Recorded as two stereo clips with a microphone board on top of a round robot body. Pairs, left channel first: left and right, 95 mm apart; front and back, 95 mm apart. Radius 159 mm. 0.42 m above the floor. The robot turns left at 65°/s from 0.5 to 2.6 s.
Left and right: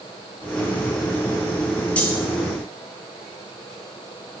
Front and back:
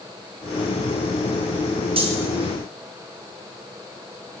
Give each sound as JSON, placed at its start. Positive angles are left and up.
{"t": 2.0, "sound": "cutlery clinking", "azimuth_deg": 165, "distance_m": 2.0}